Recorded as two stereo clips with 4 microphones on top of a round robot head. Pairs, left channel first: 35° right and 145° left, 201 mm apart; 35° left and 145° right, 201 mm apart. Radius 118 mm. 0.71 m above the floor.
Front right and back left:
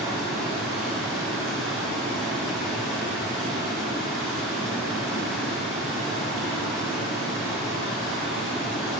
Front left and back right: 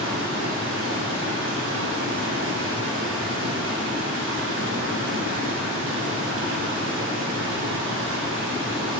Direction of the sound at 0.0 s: 125° right.